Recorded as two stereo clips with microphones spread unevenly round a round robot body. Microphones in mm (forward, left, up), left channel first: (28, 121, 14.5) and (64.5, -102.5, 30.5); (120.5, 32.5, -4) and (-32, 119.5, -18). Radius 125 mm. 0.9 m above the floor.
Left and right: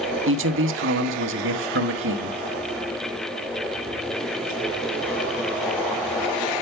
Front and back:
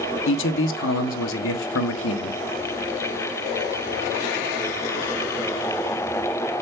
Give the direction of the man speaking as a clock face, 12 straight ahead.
2 o'clock.